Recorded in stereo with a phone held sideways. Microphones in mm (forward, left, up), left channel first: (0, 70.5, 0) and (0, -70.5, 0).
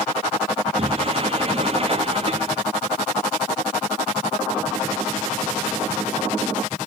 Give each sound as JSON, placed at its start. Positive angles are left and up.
{"t": 0.8, "sound": "a sliding door", "side_deg": -40, "distance_m": 1.2}